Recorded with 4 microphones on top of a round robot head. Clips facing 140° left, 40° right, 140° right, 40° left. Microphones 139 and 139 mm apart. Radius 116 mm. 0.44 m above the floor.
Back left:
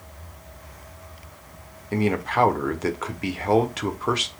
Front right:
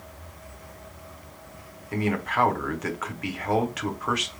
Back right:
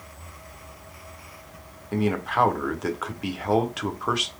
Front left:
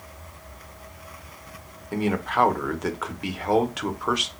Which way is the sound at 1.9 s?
130° left.